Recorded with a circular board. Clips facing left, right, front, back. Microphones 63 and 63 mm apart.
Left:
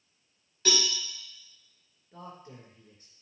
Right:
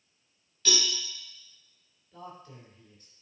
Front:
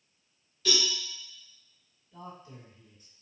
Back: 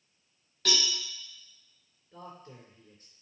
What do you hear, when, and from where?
0.7 s a cowbell: 145° left, 4 m
2.1 s a man speaking: 140° left, 3.5 m